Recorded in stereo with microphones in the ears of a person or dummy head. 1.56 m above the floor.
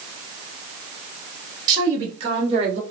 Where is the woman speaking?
30° right (ahead or behind), 2.5 m; by 2.8 s 45° right (ahead or behind), 1.0 m.